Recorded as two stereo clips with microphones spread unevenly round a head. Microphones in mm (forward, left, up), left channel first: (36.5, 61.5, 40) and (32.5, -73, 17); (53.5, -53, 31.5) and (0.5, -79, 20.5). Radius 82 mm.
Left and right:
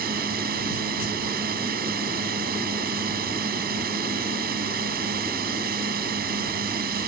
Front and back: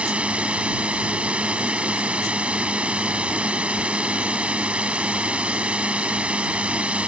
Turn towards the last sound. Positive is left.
turn(degrees=-85)